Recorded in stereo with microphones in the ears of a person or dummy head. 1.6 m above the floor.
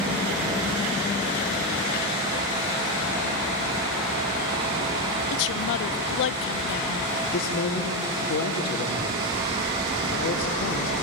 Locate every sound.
5.3 s a woman speaking: 65° left (ahead or behind), 0.7 m
7.2 s a man speaking: 65° left (ahead or behind), 3 m